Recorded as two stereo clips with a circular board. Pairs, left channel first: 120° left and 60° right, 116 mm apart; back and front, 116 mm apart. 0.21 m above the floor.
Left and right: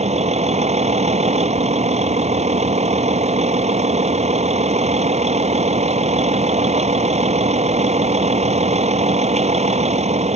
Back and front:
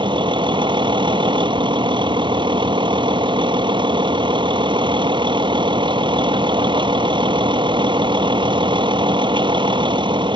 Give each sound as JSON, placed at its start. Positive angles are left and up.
{"t": 0.0, "sound": "a vehicle", "azimuth_deg": -45}